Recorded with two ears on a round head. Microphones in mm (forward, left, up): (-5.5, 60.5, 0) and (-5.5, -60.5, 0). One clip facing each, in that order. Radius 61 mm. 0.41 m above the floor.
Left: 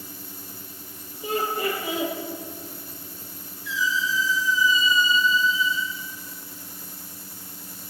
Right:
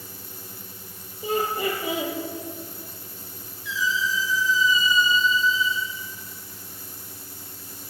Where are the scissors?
No scissors in this recording.